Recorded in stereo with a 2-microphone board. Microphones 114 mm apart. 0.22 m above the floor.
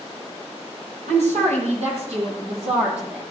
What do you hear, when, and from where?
1.1 s a woman speaking: 75° right (ahead or behind), 8 m; by 3.2 s 65° right (ahead or behind), 9.5 m